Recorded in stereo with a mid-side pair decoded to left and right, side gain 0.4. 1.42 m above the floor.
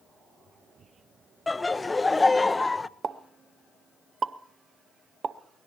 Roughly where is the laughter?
Ahead.